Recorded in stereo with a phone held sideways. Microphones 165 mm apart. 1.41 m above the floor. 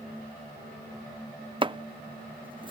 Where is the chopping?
30° right (ahead or behind).